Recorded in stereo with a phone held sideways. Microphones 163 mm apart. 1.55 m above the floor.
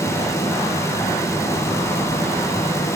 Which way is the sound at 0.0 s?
15° left (ahead or behind).